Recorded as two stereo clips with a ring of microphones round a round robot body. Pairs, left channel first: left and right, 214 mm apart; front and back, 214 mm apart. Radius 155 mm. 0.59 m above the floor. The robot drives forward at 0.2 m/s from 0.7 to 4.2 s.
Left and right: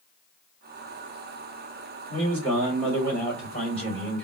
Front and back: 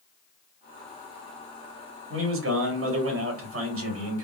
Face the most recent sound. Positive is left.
turn(degrees=175)